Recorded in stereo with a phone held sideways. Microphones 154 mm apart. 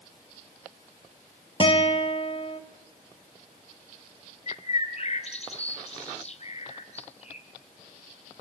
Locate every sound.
1.6 s a guitar: 40° left (ahead or behind), 1.3 m
4.5 s a bird: 45° left (ahead or behind), 1.8 m